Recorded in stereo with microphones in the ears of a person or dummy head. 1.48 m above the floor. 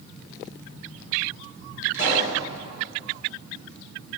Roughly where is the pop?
Left.